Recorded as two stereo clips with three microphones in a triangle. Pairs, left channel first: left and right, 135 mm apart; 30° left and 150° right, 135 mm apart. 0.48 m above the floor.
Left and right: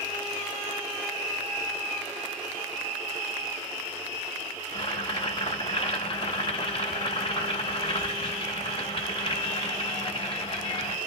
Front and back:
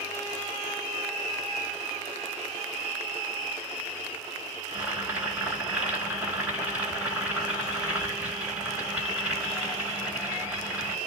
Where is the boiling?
130° left, 2.5 m.